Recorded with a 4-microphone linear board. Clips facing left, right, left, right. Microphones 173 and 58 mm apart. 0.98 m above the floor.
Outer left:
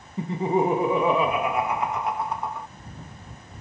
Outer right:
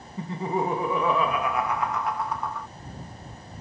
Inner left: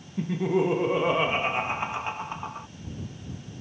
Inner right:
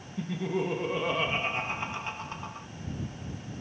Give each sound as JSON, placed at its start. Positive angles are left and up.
{"t": 0.2, "sound": "laughter", "side_deg": 20}